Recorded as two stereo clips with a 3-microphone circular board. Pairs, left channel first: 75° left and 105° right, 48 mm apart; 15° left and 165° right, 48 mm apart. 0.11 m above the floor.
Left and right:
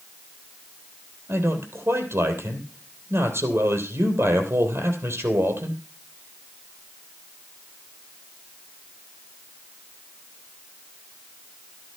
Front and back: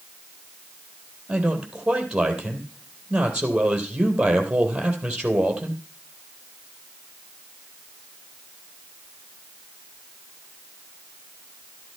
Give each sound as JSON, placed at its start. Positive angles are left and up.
{"t": 1.3, "sound": "a man speaking", "azimuth_deg": -95, "distance_m": 3.0}